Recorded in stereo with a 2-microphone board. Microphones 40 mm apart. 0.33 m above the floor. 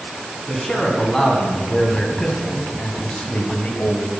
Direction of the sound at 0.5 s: 5° left (ahead or behind).